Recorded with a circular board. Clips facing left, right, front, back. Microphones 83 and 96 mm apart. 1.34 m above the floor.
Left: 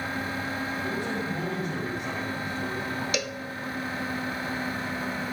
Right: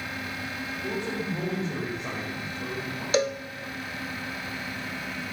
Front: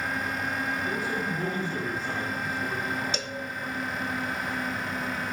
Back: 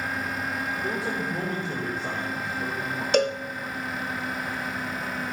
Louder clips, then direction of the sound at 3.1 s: Right 7 dB, back 12 dB; 145° right.